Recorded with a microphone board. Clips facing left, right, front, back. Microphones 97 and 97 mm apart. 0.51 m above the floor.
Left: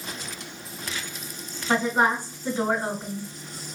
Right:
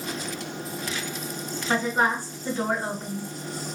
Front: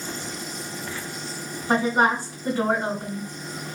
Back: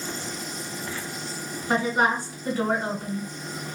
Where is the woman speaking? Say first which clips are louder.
Left 2 dB, front 2 dB; 30° left, 2 m.